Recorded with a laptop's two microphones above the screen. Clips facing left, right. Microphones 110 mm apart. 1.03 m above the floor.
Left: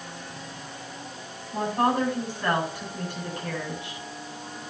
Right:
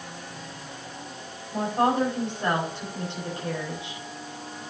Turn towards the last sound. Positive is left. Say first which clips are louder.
# right 1 dB
turn(degrees=-25)  # may be behind; listen again after turning